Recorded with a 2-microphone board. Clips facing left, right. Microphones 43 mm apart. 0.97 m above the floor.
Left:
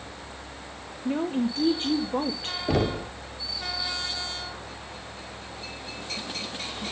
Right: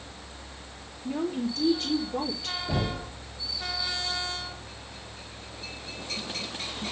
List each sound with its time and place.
1.1 s a woman speaking: 30° left (ahead or behind), 1.7 m
2.7 s knocking: 85° left, 1.7 m